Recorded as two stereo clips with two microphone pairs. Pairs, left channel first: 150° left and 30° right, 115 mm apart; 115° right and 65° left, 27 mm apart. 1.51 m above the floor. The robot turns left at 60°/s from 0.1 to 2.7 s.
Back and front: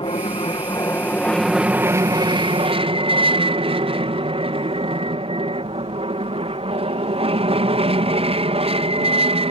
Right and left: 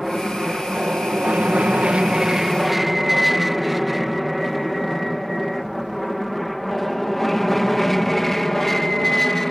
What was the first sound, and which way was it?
An aircraft, 145° left.